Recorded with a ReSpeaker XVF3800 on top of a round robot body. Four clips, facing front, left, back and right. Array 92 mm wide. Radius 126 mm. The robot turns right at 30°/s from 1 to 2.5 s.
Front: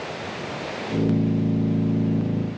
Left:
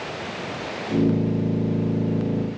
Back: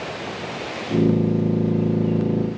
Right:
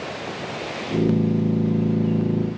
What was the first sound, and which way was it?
Only background noise.